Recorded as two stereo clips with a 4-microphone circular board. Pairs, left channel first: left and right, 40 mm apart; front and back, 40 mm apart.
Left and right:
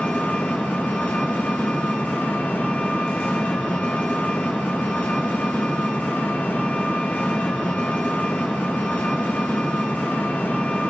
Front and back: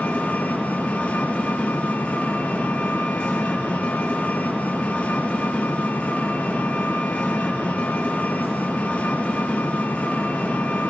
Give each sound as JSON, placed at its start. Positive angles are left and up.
{"t": 0.0, "sound": "an engine running", "azimuth_deg": 55, "distance_m": 6.5}